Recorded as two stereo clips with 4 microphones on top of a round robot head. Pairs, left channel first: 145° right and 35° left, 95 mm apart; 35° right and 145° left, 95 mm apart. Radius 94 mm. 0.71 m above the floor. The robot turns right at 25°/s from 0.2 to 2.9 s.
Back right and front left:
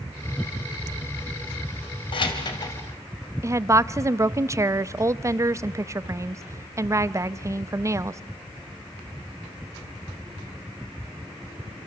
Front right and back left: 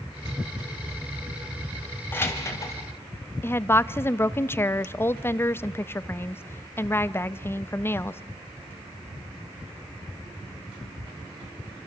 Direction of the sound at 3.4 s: 10° left.